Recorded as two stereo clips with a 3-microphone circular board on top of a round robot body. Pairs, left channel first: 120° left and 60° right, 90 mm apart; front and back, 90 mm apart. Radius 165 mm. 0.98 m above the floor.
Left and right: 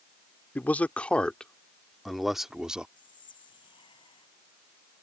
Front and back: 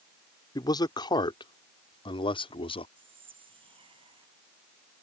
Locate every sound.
0.6 s a man speaking: 45° left; by 2.9 s 20° left
3.0 s whispering: 155° left